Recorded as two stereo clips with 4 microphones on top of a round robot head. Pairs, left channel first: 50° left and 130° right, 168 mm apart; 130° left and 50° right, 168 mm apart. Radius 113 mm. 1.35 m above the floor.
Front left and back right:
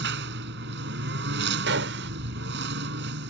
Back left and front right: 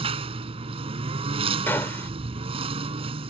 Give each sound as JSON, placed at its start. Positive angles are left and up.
{"t": 0.0, "sound": "a lawn mower", "azimuth_deg": -105}
{"t": 1.7, "sound": "a gunshot", "azimuth_deg": -150}